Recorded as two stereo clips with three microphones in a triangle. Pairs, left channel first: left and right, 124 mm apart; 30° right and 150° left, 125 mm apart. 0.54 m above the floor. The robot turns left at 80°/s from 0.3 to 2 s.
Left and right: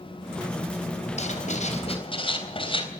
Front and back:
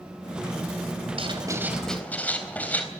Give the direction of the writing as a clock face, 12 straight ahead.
8 o'clock.